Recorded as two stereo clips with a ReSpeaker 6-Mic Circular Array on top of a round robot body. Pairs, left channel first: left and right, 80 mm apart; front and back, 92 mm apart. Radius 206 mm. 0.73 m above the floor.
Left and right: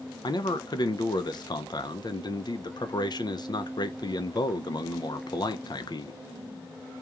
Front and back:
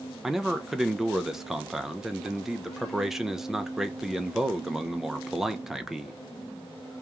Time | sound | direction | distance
0.2 | a man speaking | 95° left | 0.6 m